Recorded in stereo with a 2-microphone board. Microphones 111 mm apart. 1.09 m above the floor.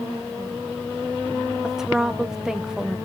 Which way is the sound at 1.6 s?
5° right (ahead or behind).